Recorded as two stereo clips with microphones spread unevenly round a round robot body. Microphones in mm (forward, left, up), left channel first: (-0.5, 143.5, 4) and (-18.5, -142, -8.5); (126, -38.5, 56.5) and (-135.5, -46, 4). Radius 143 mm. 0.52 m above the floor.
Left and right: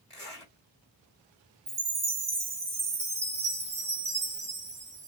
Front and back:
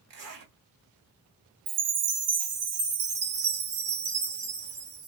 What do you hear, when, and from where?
0.1 s a zipper: 175° left, 2 m
1.7 s a chime: 175° right, 0.8 m